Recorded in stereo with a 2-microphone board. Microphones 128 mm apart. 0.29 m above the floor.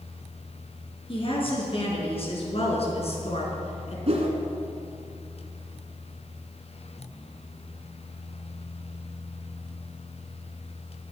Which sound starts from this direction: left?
A woman speaking, at 1.1 s.